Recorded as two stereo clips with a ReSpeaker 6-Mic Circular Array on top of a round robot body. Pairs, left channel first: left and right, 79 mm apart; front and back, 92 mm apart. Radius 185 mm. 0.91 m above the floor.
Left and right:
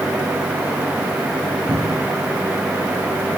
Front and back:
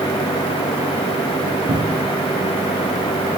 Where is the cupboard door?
150° right, 3.5 m.